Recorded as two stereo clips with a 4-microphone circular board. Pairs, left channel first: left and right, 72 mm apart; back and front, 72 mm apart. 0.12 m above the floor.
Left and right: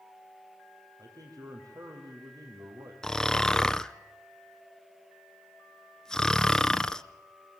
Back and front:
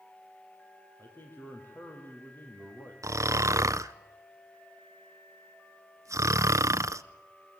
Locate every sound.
1.0 s a man speaking: 120° right, 5.5 m
3.0 s snoring: 10° left, 0.6 m